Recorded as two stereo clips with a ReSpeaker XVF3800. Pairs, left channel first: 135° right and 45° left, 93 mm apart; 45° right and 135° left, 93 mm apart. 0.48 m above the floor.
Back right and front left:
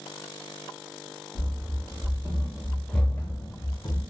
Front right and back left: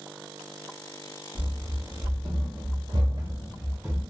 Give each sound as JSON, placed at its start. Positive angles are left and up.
{"t": 1.4, "sound": "running footsteps", "azimuth_deg": 85, "distance_m": 1.6}